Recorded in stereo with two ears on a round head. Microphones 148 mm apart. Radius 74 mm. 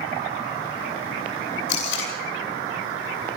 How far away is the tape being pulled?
About 9 m.